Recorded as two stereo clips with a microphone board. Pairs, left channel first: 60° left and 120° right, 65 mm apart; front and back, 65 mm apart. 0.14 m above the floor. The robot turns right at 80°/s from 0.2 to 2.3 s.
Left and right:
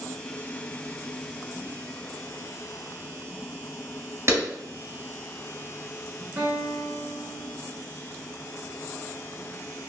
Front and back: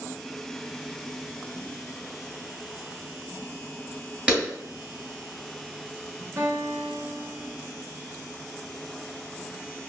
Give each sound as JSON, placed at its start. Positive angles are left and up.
{"t": 4.3, "sound": "a clap", "azimuth_deg": -110, "distance_m": 1.6}
{"t": 6.4, "sound": "a guitar", "azimuth_deg": -165, "distance_m": 0.8}